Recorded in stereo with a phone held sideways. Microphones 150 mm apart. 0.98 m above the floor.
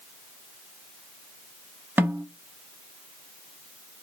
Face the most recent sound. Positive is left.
turn(degrees=-10)  # may be behind; listen again after turning